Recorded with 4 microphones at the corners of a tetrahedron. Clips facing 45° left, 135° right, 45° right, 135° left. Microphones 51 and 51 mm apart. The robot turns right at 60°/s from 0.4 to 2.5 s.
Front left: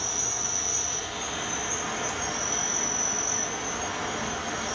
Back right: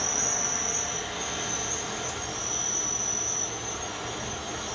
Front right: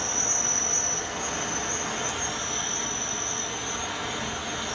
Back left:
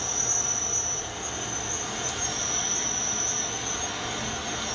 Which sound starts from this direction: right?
An insect, at 0.0 s.